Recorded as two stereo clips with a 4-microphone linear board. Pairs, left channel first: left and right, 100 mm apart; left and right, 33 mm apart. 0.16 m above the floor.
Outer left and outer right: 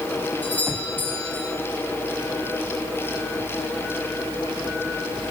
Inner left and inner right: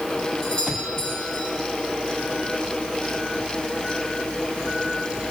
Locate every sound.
0.4 s a doorbell: 20° left (ahead or behind), 7.5 m